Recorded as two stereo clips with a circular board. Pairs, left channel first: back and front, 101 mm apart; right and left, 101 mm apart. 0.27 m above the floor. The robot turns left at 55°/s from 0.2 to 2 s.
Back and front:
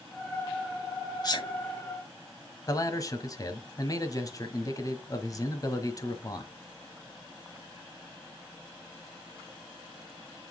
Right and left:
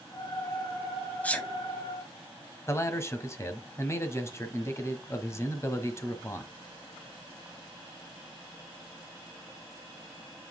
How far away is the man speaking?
About 1.3 m.